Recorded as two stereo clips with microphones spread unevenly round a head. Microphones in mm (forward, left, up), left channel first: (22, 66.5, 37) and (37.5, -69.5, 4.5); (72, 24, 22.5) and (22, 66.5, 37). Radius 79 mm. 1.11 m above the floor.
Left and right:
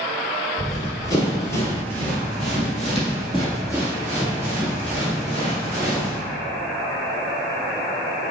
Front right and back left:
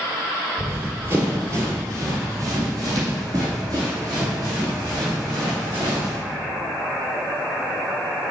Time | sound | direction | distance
0.6 | running footsteps | 115° left | 1.4 m